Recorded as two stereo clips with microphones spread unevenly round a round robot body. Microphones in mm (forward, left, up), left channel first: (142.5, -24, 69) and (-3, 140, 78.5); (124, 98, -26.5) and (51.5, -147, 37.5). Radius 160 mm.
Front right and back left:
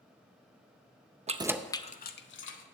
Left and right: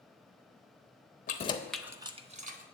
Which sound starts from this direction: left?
Keys jangling, at 1.3 s.